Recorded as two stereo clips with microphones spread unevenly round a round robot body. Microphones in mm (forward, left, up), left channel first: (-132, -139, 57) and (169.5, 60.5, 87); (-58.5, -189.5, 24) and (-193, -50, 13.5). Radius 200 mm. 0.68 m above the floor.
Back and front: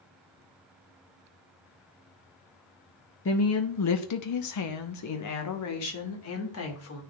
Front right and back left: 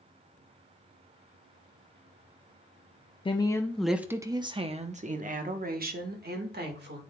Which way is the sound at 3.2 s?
110° right.